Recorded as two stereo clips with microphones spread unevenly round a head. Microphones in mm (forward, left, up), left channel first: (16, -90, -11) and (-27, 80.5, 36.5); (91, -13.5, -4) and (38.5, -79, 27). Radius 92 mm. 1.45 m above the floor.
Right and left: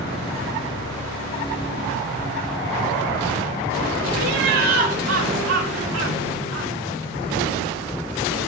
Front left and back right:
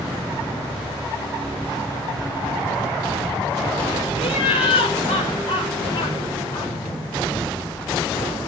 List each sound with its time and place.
4.2 s laughter: 90° left, 4 m; by 6.7 s 130° left, 4.5 m